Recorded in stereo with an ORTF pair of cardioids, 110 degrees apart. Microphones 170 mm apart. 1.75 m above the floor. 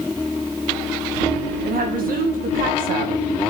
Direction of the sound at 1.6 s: 60° right.